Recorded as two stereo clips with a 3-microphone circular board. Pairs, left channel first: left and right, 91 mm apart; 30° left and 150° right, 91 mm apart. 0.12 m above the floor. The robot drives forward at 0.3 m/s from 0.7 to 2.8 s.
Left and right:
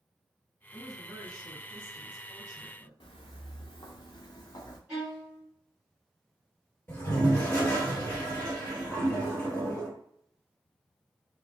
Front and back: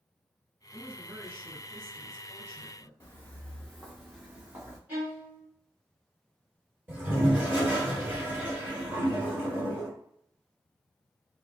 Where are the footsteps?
90° left, 0.8 m; by 4.8 s 145° left, 1.2 m.